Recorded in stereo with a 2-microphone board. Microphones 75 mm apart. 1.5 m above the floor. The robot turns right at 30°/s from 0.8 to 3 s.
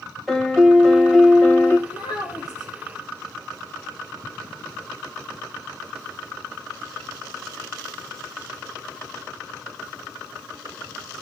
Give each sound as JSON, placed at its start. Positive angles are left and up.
{"t": 0.3, "sound": "a piano", "side_deg": 0, "distance_m": 1.3}
{"t": 1.9, "sound": "a child speaking", "side_deg": 65, "distance_m": 3.0}